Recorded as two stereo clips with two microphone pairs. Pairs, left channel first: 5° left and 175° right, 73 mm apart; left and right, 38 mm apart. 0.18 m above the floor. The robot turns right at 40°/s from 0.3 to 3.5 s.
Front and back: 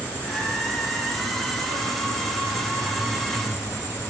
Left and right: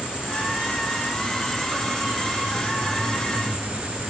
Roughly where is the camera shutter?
I don't hear a camera shutter.